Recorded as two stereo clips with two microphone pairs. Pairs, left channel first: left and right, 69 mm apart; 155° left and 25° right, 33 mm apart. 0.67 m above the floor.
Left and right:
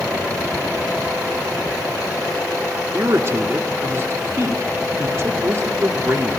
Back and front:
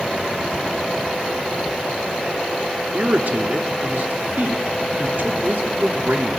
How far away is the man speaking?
About 1.1 m.